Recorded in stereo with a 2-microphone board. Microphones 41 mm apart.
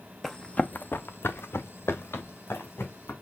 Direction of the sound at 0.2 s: 5° left (ahead or behind).